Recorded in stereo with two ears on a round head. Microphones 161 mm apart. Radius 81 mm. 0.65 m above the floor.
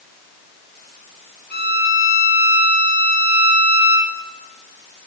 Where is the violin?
55° left (ahead or behind), 1.8 m.